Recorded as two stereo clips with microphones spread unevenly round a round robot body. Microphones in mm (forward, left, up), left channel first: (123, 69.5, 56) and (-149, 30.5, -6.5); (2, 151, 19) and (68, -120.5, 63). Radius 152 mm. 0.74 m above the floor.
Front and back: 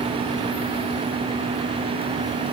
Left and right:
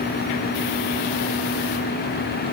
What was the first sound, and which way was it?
Only background noise.